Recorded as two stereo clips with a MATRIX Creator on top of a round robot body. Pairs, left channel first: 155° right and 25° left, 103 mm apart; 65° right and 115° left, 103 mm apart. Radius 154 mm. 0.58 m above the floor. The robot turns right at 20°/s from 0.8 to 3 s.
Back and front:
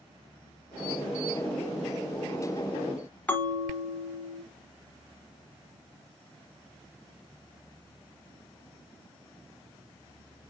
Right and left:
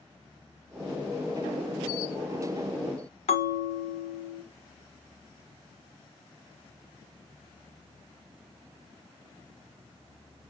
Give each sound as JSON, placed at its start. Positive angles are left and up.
{"t": 3.3, "sound": "a bell", "azimuth_deg": -80, "distance_m": 1.4}